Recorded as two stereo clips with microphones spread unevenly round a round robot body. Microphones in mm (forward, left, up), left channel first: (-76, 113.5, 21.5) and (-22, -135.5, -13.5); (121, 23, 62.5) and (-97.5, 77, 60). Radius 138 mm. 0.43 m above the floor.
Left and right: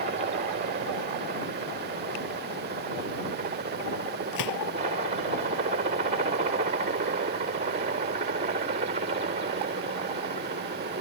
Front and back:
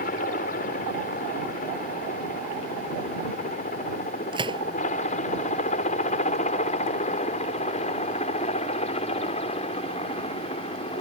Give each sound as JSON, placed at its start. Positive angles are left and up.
{"t": 0.0, "sound": "a helicopter", "azimuth_deg": -40}
{"t": 4.3, "sound": "a gunshot", "azimuth_deg": 95}